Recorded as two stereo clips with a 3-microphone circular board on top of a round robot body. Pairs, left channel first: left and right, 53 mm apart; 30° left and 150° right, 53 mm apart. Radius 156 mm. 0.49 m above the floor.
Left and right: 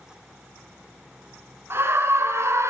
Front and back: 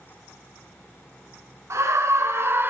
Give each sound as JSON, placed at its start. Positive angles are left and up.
{"t": 1.7, "sound": "a scream", "azimuth_deg": -125, "distance_m": 3.0}